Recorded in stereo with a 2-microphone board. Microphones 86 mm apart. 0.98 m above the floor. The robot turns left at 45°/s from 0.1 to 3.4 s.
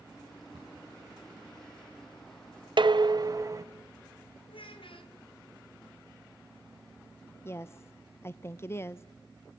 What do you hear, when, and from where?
0.5 s a cupboard door: 70° right (ahead or behind), 9 m; by 0.9 s 85° right, 9 m
2.8 s dishes clattering: 65° right (ahead or behind), 0.6 m; by 3.6 s 40° right (ahead or behind), 0.6 m
4.5 s a child speaking: 85° left, 3 m
7.5 s a woman speaking: 30° left (ahead or behind), 0.5 m